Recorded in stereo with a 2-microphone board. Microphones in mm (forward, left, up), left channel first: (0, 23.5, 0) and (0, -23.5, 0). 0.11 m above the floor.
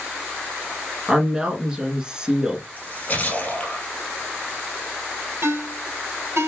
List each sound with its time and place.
1.1 s a woman speaking: 20° right (ahead or behind), 1.1 m
2.8 s a splash: 35° left (ahead or behind), 2 m
5.4 s a ringtone: 60° right (ahead or behind), 1.7 m